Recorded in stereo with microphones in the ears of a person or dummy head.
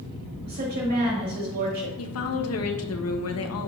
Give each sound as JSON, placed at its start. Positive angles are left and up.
{"t": 0.4, "sound": "a woman speaking", "side_deg": -50, "distance_m": 2.5}
{"t": 2.0, "sound": "a woman speaking", "side_deg": 70, "distance_m": 1.1}